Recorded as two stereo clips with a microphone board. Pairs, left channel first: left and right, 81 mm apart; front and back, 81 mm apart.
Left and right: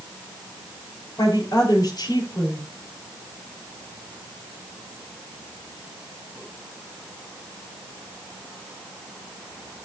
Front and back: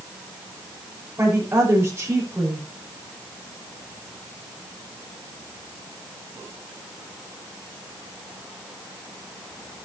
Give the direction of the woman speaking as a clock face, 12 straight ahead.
8 o'clock.